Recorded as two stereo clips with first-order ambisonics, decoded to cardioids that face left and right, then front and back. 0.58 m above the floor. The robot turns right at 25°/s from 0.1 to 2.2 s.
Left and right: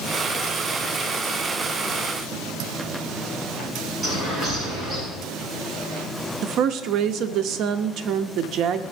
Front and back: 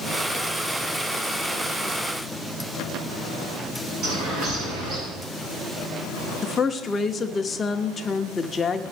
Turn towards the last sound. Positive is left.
turn(degrees=-70)